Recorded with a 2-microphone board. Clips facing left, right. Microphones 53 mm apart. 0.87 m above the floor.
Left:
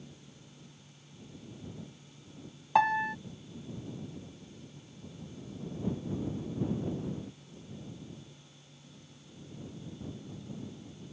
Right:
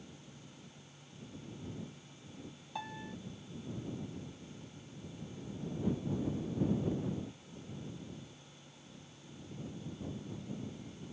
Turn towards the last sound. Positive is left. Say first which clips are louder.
# left 18 dB
turn(degrees=85)